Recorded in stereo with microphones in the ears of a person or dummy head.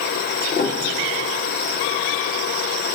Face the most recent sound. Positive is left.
turn(degrees=40)  # may be behind; listen again after turning